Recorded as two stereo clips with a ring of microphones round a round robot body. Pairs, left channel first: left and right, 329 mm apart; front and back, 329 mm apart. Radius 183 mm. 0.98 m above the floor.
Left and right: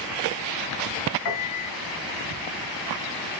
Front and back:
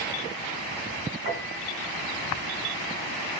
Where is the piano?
110° left, 3.5 m.